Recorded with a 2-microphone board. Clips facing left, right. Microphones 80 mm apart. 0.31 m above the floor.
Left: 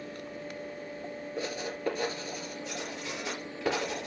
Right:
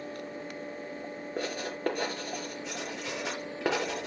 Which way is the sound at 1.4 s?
60° right (ahead or behind).